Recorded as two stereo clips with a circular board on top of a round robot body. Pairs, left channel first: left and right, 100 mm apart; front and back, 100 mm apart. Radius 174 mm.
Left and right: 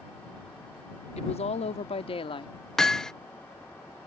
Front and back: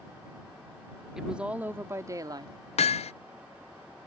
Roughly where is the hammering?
Ahead.